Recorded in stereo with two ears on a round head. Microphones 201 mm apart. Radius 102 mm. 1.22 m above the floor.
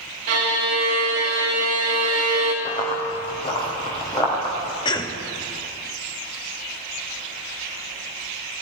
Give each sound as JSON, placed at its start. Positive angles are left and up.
{"t": 0.3, "sound": "a violin", "side_deg": -80, "distance_m": 1.6}
{"t": 2.6, "sound": "running footsteps", "side_deg": 30, "distance_m": 2.5}
{"t": 4.8, "sound": "a cough", "side_deg": 20, "distance_m": 0.8}